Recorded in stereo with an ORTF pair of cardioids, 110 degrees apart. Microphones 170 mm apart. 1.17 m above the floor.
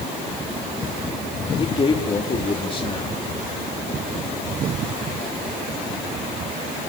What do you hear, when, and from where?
1.6 s a man speaking: 30° left, 2.5 m